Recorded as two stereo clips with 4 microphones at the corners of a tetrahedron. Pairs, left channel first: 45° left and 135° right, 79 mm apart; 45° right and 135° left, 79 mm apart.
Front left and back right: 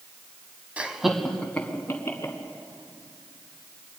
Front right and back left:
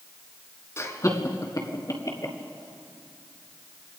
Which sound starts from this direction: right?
Laughter, at 0.8 s.